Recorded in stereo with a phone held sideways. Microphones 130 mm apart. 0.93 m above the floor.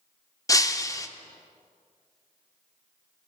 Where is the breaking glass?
25° left (ahead or behind), 0.5 m.